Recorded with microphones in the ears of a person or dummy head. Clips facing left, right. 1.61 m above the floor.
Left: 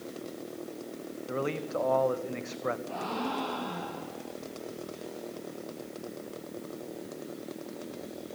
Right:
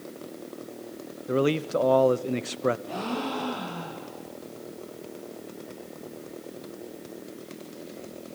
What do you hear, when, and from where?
1.3 s a man speaking: 50° right (ahead or behind), 0.9 m
2.9 s a gasp: 60° right (ahead or behind), 8 m